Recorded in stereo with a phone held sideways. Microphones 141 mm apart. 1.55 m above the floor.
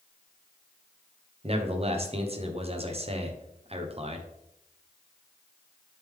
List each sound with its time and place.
1.4 s a man speaking: 45° right (ahead or behind), 1.0 m